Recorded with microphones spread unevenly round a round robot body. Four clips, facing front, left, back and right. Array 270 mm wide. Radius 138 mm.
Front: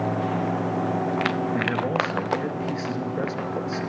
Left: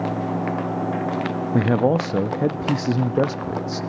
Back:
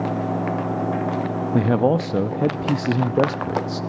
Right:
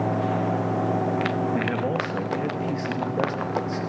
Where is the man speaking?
145° left, 0.8 m.